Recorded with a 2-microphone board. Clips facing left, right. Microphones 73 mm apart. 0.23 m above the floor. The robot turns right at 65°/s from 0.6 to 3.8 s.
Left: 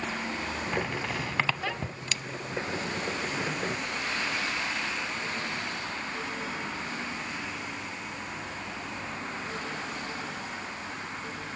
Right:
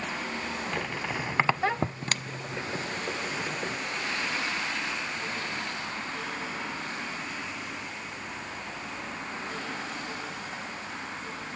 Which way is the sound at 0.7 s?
15° left (ahead or behind).